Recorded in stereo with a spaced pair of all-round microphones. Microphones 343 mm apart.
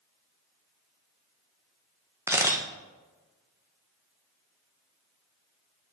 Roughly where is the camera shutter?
Centre.